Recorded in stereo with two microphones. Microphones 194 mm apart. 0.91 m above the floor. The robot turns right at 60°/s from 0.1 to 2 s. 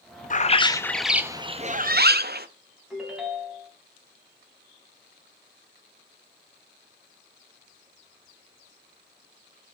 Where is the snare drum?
No snare drum in this recording.